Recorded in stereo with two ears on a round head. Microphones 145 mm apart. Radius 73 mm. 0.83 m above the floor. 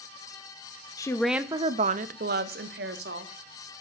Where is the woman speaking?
25° left (ahead or behind), 0.6 m; by 3.3 s 70° right (ahead or behind), 1.6 m.